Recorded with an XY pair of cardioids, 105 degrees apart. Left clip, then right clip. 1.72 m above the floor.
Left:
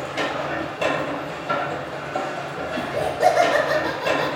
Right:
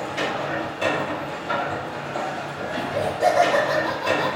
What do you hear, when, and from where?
0.0 s a machine running: 20° left, 1.3 m
2.8 s laughter: 20° left, 0.6 m